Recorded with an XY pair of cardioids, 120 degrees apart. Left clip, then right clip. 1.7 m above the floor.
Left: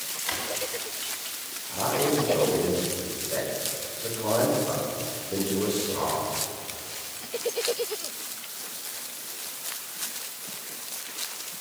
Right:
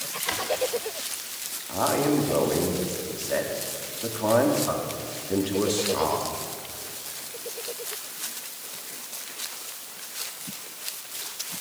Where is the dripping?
I don't hear dripping.